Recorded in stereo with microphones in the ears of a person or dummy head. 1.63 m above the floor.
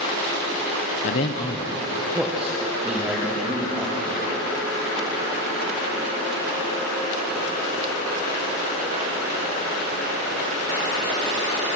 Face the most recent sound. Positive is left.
turn(degrees=-15)  # may be behind; listen again after turning